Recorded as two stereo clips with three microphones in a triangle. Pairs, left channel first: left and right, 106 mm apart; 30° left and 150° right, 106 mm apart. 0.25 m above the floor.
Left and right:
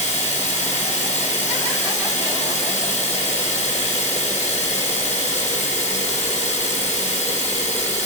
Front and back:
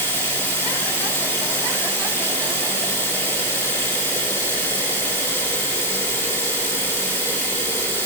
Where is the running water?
95° left, 6 m.